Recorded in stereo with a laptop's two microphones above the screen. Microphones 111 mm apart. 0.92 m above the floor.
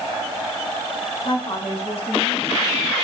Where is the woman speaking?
50° left (ahead or behind), 6 m; by 2.9 s 70° left (ahead or behind), 5 m.